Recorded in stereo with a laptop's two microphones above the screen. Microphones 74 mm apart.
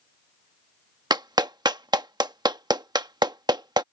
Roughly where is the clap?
Right.